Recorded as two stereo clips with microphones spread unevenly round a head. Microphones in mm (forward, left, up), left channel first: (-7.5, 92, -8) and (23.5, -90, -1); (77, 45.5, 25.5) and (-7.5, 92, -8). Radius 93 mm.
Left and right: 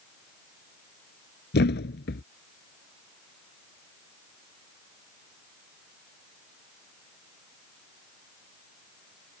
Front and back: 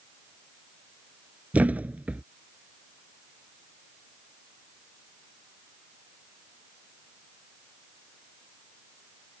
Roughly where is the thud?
Left.